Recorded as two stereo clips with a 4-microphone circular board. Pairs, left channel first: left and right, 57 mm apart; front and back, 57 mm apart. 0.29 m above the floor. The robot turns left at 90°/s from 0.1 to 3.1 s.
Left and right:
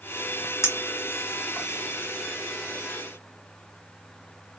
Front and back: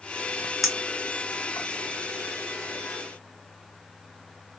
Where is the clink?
95° left, 1.4 m; by 1.7 s straight ahead, 1.4 m.